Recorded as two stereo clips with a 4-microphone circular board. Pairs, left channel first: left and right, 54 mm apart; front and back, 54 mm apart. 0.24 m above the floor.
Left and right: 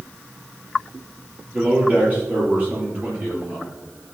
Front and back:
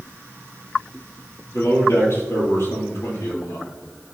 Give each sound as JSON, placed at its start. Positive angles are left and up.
{"t": 1.5, "sound": "a man speaking", "azimuth_deg": -35, "distance_m": 4.5}